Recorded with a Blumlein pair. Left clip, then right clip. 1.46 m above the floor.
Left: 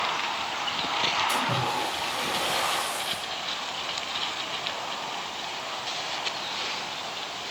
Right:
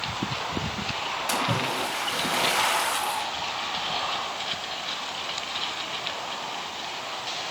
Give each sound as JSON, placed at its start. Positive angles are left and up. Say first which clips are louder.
{"t": 1.3, "sound": "a splash", "louder": "even", "azimuth_deg": -50, "distance_m": 5.0}